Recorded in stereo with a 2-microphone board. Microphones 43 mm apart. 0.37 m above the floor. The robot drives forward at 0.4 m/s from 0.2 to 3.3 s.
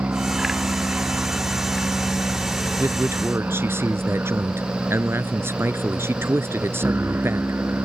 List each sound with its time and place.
0.0 s an aircraft: 50° right (ahead or behind); by 7.9 s 60° right (ahead or behind)
2.8 s a man speaking: 80° right